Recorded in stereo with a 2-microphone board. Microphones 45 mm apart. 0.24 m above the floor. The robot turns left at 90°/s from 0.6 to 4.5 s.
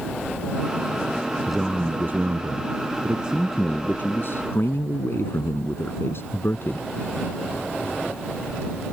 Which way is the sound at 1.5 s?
5° left.